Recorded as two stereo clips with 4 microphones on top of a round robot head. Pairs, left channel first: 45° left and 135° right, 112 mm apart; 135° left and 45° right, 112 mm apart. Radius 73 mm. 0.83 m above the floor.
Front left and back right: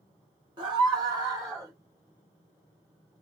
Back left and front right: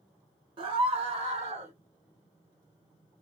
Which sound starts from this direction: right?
A scream, at 0.6 s.